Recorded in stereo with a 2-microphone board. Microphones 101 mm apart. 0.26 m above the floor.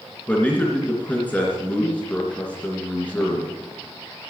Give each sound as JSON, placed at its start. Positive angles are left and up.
{"t": 0.3, "sound": "a man speaking", "side_deg": 15, "distance_m": 3.0}